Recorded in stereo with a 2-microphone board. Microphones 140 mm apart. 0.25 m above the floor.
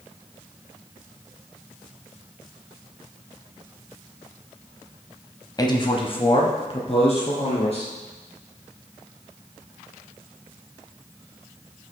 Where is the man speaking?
30° left (ahead or behind), 1.2 m; by 7.9 s 45° left (ahead or behind), 4.5 m.